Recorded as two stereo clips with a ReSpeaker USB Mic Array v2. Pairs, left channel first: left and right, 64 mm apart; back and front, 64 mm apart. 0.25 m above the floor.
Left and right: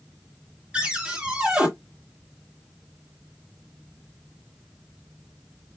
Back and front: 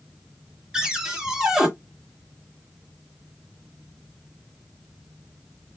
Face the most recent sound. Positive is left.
turn(degrees=-55)